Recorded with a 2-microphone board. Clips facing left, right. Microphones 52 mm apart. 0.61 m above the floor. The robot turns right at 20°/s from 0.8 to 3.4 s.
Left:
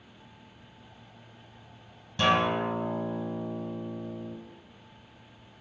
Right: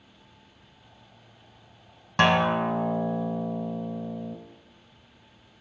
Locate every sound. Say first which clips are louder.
2.2 s a guitar: right 3 dB; 80° right, 1.1 m; by 4.4 s 65° right (ahead or behind), 1.1 m